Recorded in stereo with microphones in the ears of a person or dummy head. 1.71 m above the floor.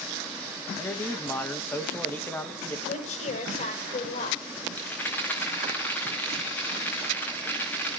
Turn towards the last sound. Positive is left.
turn(degrees=10)  # may be behind; listen again after turning